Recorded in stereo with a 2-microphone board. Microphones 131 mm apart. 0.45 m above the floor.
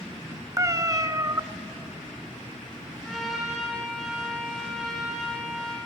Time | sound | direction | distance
0.6 | a cat meowing | 25° right (ahead or behind) | 0.5 m
3.0 | a trumpet | centre (ahead or behind) | 6 m